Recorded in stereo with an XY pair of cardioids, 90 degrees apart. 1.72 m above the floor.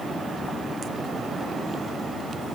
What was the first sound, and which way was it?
Only background noise.